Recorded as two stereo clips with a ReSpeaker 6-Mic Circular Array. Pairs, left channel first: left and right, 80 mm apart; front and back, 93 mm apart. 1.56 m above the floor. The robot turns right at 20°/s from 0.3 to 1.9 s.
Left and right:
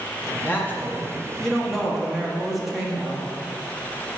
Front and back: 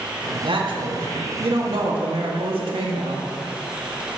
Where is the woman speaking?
155° left, 1.4 m; by 3.3 s 175° right, 1.4 m.